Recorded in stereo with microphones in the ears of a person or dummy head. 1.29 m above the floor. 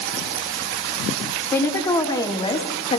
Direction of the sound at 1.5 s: 15° left (ahead or behind).